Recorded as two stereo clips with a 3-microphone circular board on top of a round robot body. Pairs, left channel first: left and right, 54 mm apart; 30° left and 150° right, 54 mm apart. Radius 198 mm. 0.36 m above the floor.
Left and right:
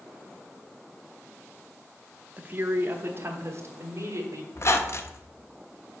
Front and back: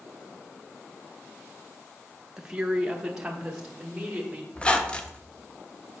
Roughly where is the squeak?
Left.